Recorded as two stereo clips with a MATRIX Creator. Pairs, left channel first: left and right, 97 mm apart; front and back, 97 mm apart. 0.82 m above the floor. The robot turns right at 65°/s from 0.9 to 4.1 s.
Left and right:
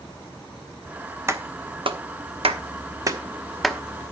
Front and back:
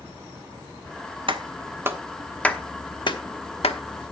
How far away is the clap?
About 1.0 m.